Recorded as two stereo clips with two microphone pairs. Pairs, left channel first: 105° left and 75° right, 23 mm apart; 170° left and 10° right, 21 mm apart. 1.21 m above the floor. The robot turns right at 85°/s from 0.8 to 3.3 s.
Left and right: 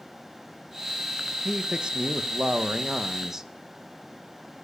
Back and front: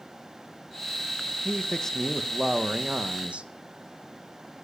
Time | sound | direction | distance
1.4 | a man speaking | 160° right | 0.8 m